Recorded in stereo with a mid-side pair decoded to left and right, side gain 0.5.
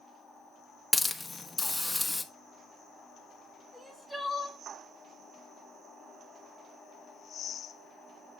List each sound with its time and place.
0.9 s a hiss: 10° left, 0.9 m
3.7 s crying: 5° right, 1.6 m